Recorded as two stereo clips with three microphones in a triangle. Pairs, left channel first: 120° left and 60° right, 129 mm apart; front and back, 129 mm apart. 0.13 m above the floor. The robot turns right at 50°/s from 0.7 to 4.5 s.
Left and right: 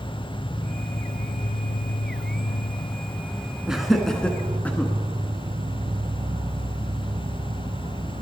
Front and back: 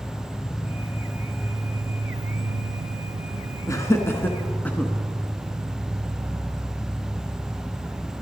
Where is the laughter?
20° left, 1.1 m; by 4.9 s 60° left, 1.1 m.